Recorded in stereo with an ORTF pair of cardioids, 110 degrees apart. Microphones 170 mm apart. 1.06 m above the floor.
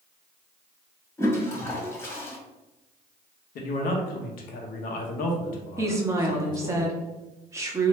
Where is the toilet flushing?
15° left, 1.3 m.